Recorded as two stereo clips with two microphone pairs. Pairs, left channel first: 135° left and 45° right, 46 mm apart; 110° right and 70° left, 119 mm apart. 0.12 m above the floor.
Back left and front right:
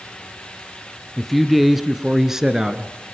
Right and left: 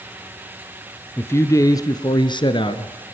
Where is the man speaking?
135° right, 1.3 m; by 2.9 s 115° right, 1.9 m.